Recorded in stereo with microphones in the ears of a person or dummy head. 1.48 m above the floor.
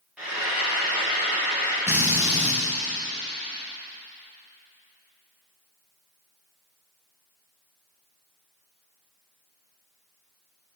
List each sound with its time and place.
0.2 s frying: centre (ahead or behind), 2.0 m
1.9 s a drill: 5° right (ahead or behind), 1.0 m